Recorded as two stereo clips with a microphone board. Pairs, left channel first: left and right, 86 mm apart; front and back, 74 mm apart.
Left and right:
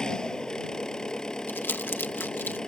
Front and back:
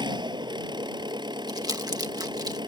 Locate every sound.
0.0 s an engine running: 170° left
1.5 s crumpling: 155° left